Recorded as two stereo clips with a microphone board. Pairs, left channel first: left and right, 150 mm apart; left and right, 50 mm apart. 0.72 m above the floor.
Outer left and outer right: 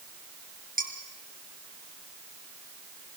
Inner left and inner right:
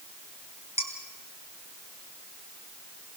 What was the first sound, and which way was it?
Dishes clattering, 75° right (ahead or behind).